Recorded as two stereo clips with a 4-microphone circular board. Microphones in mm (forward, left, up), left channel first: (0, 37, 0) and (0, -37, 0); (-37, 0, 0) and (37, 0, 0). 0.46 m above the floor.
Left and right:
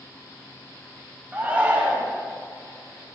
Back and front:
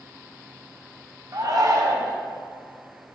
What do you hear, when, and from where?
1.3 s a shout: 20° right, 2.0 m